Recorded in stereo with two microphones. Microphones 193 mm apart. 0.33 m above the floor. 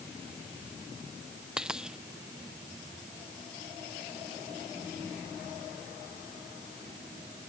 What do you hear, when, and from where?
1.6 s a dropped coin: 5° right (ahead or behind)